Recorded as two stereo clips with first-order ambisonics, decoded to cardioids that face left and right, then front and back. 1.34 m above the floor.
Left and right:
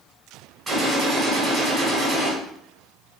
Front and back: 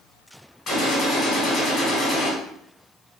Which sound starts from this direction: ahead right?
A gunshot, at 0.7 s.